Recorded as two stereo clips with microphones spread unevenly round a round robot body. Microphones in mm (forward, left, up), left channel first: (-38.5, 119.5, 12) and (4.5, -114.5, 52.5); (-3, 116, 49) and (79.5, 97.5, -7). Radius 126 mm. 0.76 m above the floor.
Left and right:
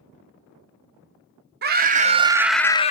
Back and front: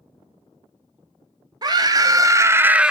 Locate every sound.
1.6 s a scream: 25° right, 1.7 m; by 2.9 s 45° left, 1.0 m